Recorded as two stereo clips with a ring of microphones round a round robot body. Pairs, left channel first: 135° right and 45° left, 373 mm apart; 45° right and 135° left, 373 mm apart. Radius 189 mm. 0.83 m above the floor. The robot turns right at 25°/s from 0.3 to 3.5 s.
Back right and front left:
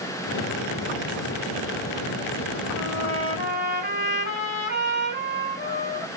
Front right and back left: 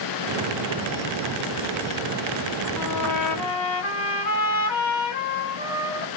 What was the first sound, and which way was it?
A trumpet, 85° right.